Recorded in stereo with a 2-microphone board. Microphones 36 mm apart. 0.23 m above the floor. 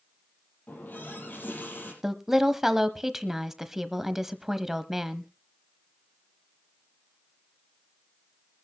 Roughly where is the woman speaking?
Centre.